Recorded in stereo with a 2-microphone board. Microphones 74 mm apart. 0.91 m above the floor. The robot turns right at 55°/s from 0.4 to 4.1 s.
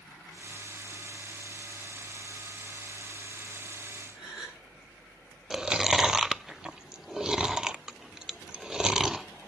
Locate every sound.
4.1 s a gasp: 10° right (ahead or behind), 10 m
5.5 s chewing: 10° right (ahead or behind), 0.5 m